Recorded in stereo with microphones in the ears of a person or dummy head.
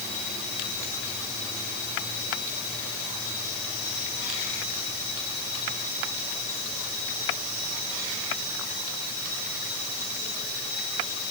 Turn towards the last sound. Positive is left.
No sound to turn to.